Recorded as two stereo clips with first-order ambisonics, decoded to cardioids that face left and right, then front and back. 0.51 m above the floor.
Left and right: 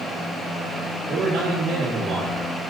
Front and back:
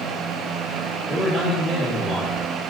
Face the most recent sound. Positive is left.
turn(degrees=-85)